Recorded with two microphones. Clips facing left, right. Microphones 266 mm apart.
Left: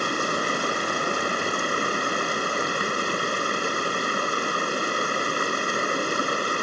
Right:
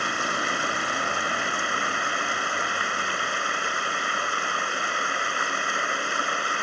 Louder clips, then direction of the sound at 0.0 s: Left 5 dB; 40° left (ahead or behind).